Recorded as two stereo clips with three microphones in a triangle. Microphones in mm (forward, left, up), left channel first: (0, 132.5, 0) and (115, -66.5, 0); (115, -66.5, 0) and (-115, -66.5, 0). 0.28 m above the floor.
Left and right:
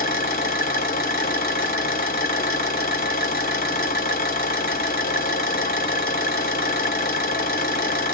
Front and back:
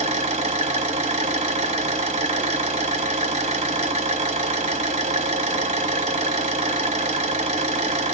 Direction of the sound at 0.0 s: 140° left.